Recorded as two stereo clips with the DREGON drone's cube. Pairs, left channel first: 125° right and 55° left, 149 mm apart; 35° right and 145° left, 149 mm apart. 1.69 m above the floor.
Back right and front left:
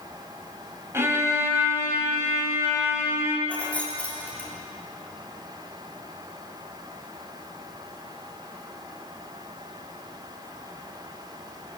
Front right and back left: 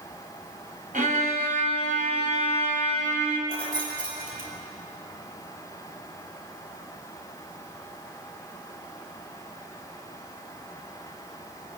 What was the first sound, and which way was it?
A violin, 125° left.